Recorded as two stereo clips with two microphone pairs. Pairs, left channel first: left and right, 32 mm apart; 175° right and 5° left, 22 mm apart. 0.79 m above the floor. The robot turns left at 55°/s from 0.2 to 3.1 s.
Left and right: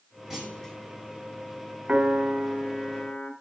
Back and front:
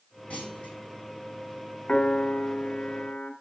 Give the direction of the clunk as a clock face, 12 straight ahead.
6 o'clock.